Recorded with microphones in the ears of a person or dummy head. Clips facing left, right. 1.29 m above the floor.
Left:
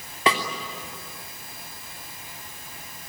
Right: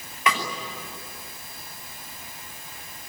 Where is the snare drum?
30° left (ahead or behind), 3 m.